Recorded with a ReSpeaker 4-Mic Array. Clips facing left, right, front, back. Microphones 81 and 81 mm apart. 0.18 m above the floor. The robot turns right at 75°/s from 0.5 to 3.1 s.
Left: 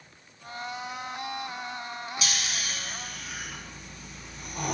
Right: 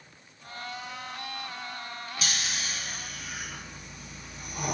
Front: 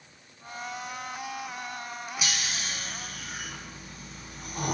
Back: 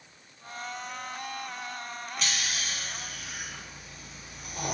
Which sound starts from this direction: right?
Snoring, at 2.2 s.